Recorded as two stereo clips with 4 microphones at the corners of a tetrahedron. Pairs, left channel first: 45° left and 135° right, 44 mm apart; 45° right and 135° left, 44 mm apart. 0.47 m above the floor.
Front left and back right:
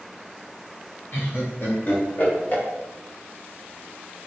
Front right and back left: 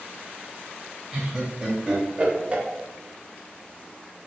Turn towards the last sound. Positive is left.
turn(degrees=85)